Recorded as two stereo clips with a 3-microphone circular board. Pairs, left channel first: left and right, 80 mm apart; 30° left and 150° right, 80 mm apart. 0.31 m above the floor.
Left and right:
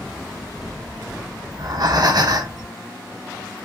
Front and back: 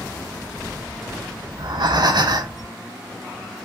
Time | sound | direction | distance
1.5 | breathing | 125° right | 0.5 m